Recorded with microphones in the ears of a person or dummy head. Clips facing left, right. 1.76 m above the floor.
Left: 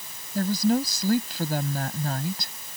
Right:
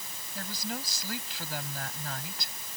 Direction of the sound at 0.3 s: 40° left (ahead or behind).